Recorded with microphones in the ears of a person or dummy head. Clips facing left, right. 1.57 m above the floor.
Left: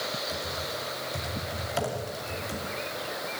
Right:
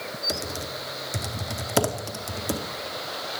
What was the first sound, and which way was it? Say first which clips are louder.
Typing on a keyboard: right 2 dB; 65° right (ahead or behind).